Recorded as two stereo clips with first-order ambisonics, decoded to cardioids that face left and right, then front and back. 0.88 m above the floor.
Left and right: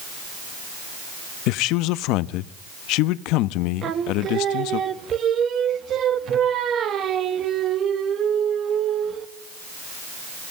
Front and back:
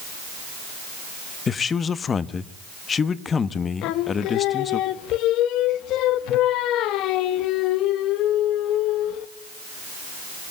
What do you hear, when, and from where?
1.5 s a man speaking: 65° left, 0.8 m
3.8 s singing: 35° right, 1.3 m